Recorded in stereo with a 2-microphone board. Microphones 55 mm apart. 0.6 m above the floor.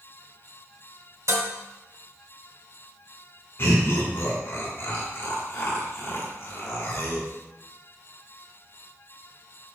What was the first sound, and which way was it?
Dishes clattering, 75° right (ahead or behind).